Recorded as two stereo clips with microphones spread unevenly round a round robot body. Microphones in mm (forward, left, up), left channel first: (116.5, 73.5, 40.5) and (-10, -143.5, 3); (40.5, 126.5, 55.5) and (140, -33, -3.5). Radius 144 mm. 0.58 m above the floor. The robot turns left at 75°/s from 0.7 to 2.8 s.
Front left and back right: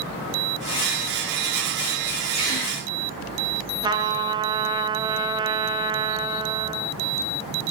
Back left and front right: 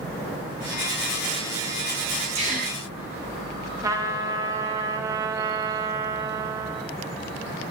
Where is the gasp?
10° right, 3 m; by 2.8 s 40° right, 3 m.